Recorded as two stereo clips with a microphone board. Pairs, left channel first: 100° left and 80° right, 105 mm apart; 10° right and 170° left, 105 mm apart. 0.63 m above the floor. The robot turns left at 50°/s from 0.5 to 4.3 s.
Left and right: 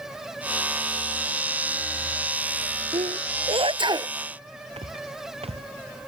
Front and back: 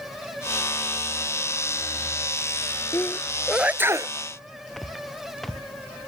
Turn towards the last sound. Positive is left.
turn(degrees=-100)